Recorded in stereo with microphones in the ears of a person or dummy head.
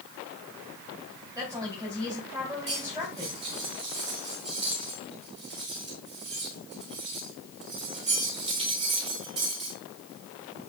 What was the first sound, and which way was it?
A woman speaking, 15° right (ahead or behind).